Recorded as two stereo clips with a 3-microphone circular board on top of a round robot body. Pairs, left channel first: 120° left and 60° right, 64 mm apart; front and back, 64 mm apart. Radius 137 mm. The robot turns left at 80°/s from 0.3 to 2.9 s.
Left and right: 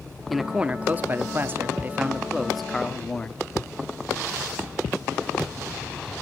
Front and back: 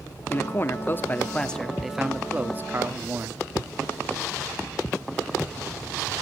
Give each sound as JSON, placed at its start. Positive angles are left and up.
{"t": 0.3, "sound": "a man speaking", "azimuth_deg": 30, "distance_m": 1.2}